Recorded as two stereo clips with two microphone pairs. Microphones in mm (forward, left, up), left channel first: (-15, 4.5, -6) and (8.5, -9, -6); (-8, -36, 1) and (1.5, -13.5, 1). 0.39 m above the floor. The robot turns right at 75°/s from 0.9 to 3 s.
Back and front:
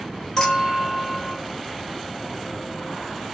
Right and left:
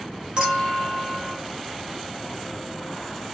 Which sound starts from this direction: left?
A clink, at 0.4 s.